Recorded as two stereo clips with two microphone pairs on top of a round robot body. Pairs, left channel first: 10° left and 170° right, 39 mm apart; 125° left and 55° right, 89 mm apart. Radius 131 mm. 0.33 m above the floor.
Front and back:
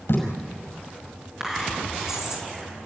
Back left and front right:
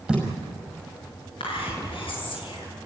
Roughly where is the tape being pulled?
Ahead left.